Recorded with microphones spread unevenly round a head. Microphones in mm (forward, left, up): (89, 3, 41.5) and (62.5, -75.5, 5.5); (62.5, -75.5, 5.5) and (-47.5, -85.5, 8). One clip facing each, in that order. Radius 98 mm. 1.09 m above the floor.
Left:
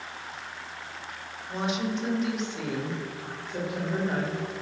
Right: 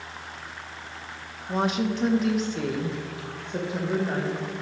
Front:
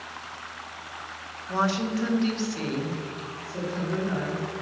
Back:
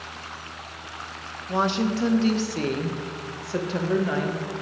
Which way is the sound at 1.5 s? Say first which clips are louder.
Right 4 dB, back 2 dB; 100° right.